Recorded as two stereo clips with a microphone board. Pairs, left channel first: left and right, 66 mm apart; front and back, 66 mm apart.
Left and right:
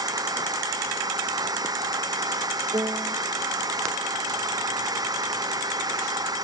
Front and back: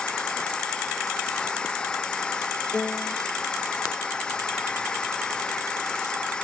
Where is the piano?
70° right.